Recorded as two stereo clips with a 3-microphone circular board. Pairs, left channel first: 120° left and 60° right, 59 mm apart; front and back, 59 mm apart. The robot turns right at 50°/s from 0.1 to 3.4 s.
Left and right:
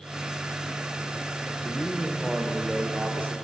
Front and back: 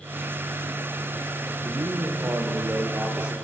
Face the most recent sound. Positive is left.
turn(degrees=-100)